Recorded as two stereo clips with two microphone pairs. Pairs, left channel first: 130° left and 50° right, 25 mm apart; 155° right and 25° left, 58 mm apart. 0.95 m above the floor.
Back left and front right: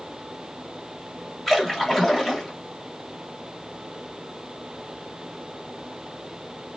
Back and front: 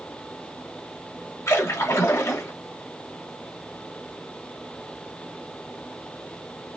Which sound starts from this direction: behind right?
A splash, at 1.5 s.